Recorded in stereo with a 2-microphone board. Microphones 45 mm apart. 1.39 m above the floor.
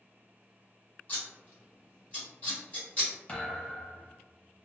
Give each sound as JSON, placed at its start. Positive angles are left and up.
{"t": 1.1, "sound": "scissors", "side_deg": 35, "distance_m": 1.9}
{"t": 3.3, "sound": "a thud", "side_deg": 25, "distance_m": 0.8}